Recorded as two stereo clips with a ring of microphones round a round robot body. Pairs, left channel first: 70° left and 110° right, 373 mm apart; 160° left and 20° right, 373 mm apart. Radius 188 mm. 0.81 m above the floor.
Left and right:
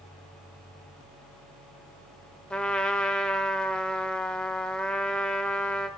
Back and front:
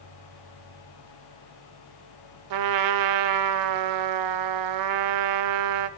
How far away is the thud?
No thud in this recording.